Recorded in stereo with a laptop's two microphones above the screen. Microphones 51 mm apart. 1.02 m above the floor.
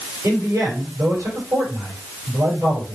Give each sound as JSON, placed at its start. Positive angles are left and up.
{"t": 0.2, "sound": "a man speaking", "side_deg": -80, "distance_m": 5.0}